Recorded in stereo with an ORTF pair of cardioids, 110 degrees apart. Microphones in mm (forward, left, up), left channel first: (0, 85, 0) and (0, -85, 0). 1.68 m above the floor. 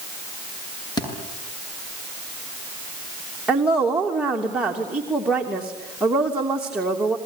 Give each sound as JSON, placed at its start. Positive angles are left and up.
{"t": 1.0, "sound": "a thud", "azimuth_deg": 25, "distance_m": 8.0}
{"t": 3.5, "sound": "a woman speaking", "azimuth_deg": -5, "distance_m": 3.0}